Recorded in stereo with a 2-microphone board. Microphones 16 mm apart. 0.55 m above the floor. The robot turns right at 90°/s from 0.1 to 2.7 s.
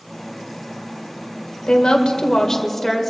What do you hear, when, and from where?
1.7 s a woman speaking: 70° left, 1.9 m; by 3.1 s 165° left, 1.9 m